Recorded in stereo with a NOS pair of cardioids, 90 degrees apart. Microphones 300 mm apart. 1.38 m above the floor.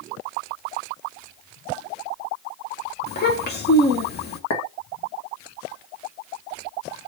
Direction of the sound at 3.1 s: 35° left.